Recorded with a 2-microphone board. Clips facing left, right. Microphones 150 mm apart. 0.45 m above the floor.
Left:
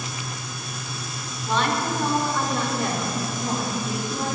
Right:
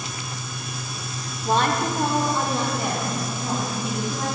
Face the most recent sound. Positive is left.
turn(degrees=-5)  # may be behind; listen again after turning